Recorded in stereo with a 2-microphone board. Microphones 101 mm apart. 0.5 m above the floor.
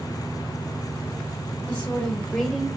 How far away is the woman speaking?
About 2.5 m.